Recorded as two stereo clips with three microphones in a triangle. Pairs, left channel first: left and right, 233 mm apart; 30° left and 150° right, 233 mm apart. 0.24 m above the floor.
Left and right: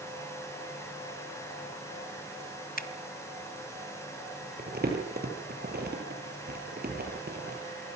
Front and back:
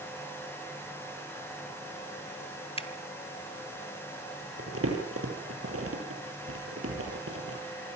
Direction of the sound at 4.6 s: 135° right.